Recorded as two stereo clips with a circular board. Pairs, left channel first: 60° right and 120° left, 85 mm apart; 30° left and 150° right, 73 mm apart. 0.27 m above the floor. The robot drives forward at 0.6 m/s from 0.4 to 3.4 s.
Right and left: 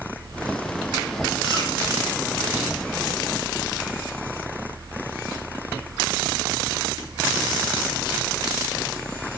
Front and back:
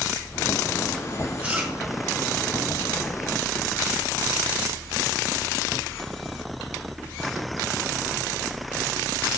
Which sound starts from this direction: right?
Chewing, at 1.4 s.